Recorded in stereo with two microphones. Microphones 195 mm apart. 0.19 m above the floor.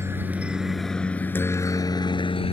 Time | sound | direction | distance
0.0 | a helicopter | 10° right (ahead or behind) | ?